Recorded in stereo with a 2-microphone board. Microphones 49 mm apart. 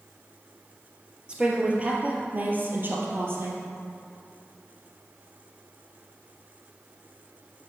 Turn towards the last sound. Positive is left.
turn(degrees=-50)  # may be behind; listen again after turning